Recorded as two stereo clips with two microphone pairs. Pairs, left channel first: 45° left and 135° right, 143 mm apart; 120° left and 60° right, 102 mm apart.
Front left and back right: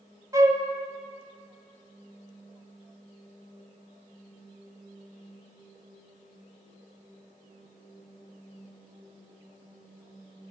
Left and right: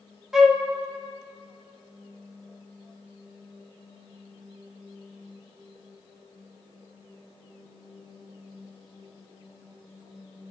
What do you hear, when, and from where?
0.3 s a flute: 135° right, 0.8 m